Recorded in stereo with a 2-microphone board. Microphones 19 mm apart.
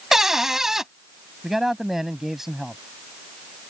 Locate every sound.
0.1 s a cupboard door: 25° right (ahead or behind)
1.4 s a man speaking: 20° right (ahead or behind)